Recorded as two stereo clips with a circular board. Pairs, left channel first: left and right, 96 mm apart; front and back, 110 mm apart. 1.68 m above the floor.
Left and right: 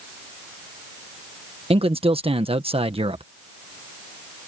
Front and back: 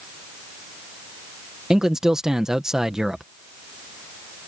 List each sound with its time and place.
1.7 s a man speaking: 95° right